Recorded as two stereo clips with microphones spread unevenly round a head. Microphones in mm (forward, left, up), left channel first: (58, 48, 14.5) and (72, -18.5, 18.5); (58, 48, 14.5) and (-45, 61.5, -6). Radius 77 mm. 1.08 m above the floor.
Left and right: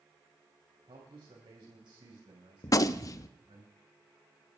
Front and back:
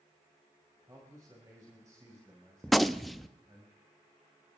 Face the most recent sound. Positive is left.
turn(degrees=75)